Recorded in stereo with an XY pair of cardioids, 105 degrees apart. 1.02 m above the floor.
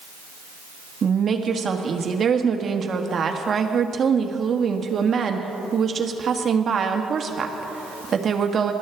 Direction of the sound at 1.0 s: 40° right.